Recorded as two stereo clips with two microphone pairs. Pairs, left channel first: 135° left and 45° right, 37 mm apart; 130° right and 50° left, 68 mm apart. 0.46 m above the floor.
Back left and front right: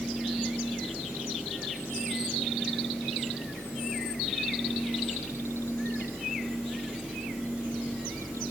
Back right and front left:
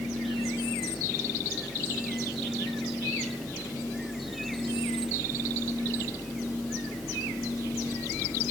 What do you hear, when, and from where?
Only background noise.